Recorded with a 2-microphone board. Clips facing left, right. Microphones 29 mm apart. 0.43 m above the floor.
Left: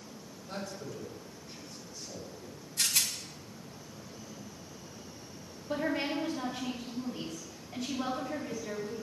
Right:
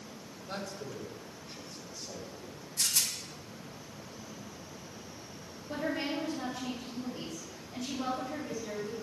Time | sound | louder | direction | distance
0.5 | a man speaking | even | 35° right (ahead or behind) | 2.5 m
2.8 | a rattle | left 1 dB | 75° left (ahead or behind) | 0.8 m
5.7 | a woman speaking | left 2 dB | 55° left (ahead or behind) | 3 m